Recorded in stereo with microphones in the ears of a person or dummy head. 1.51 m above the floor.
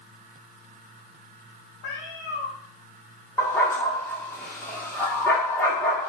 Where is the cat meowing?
60° left (ahead or behind), 2.0 m.